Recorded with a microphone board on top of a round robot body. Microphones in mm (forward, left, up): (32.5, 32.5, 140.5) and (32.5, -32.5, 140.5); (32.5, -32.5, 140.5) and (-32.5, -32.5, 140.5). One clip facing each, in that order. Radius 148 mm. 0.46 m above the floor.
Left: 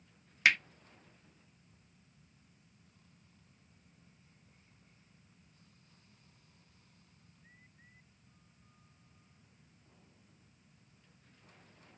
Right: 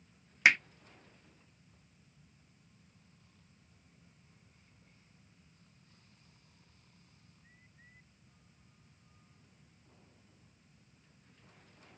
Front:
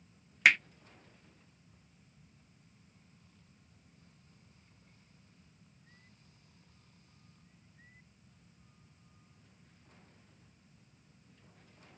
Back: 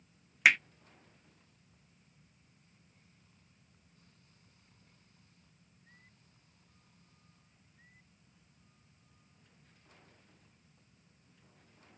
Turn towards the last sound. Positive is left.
turn(degrees=-100)